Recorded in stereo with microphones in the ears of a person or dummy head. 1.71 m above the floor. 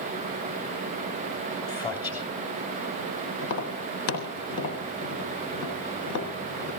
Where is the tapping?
60° left (ahead or behind), 3 m.